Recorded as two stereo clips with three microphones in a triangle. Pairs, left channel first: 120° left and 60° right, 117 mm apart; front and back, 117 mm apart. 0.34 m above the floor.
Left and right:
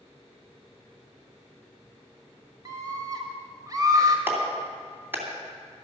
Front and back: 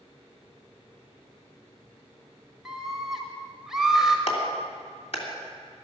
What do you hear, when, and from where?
2.6 s a scream: 95° right, 1.4 m
4.3 s a clap: 10° left, 2.5 m